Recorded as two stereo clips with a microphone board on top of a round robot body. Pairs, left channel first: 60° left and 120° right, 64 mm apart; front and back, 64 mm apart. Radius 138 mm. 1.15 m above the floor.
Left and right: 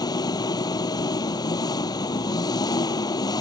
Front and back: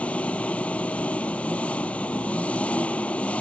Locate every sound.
0.0 s an engine running: 75° left